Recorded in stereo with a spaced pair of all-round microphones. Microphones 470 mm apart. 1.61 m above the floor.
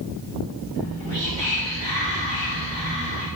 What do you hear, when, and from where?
0.8 s whispering: 65° right (ahead or behind), 0.8 m